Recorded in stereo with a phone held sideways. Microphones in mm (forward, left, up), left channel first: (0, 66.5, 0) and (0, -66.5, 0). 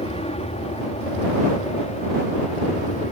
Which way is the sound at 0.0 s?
50° left (ahead or behind).